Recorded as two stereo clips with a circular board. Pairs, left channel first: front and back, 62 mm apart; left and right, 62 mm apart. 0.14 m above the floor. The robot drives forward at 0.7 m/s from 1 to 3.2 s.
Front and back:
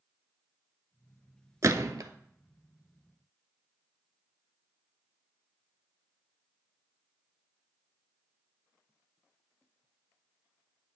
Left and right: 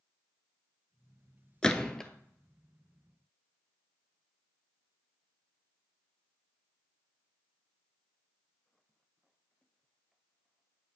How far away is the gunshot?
About 0.5 m.